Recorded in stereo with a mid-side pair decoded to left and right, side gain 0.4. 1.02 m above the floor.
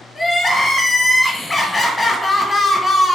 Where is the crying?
25° left, 1.0 m.